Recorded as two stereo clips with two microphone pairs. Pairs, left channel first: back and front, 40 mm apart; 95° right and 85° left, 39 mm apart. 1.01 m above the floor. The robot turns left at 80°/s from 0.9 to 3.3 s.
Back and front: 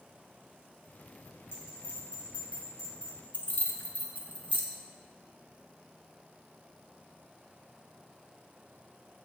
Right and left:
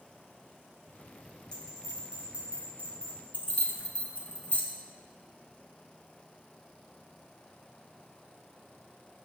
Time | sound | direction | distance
1.5 | a bell | 165° right | 2 m
3.3 | keys jangling | 135° right | 0.8 m